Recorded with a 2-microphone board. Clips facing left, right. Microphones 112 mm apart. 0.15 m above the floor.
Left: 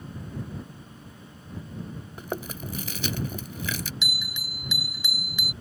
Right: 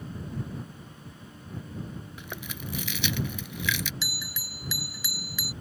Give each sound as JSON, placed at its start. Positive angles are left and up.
{"t": 2.2, "sound": "chewing", "side_deg": 40}
{"t": 4.0, "sound": "a bell", "side_deg": 20}